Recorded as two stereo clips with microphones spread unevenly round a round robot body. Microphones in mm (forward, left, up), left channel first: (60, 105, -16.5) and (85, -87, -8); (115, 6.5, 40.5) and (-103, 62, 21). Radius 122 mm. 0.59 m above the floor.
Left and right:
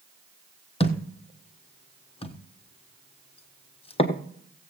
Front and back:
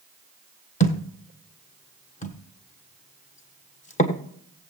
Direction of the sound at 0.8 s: 40° left.